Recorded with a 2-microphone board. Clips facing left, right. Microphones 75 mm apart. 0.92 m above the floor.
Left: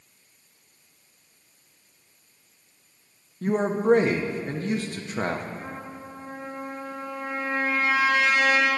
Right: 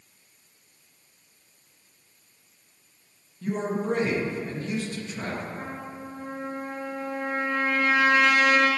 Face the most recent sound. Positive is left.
turn(degrees=-55)  # may be behind; listen again after turning